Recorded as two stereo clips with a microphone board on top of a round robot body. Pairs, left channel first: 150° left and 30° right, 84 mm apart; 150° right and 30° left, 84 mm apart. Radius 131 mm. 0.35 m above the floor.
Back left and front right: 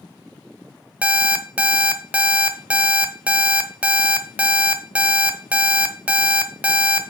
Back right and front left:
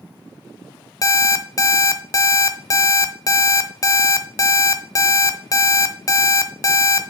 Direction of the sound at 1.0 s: 105° right.